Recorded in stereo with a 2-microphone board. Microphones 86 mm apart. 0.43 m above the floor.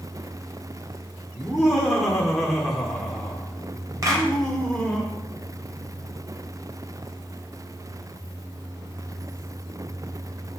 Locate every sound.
1.4 s laughter: centre (ahead or behind), 1.5 m; by 5.0 s 10° left (ahead or behind), 2.0 m
4.0 s a clap: 40° right (ahead or behind), 2 m